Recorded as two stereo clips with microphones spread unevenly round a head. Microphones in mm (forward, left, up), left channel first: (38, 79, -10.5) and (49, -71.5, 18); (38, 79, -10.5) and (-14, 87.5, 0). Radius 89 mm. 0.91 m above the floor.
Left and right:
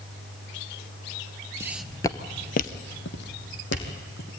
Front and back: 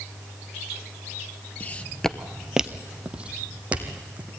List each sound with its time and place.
1.6 s footsteps: 65° right, 1.0 m; by 4.3 s 115° left, 3 m